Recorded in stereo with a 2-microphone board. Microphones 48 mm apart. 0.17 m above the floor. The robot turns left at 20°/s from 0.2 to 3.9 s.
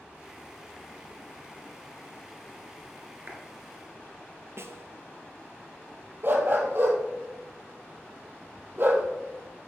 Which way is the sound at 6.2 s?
50° right (ahead or behind).